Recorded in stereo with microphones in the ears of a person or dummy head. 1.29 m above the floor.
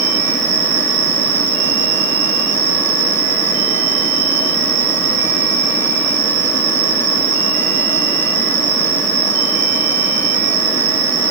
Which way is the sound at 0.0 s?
30° left (ahead or behind).